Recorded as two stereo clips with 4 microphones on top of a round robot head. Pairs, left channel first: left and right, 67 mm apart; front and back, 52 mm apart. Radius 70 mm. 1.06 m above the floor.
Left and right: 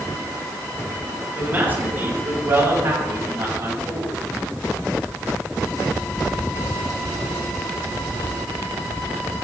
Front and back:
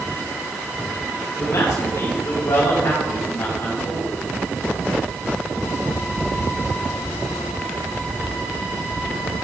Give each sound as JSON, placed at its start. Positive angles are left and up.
{"t": 1.4, "sound": "a man speaking", "azimuth_deg": -30, "distance_m": 5.5}